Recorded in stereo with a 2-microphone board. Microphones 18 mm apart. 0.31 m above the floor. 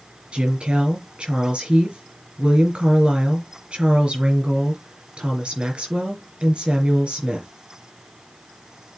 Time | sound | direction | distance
0.3 | a woman speaking | 75° right (ahead or behind) | 4 m